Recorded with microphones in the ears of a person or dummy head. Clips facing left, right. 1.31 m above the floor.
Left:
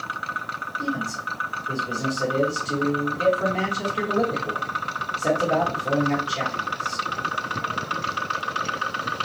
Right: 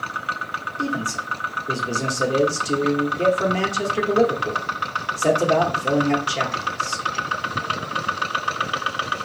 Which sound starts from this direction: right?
A man speaking, at 0.8 s.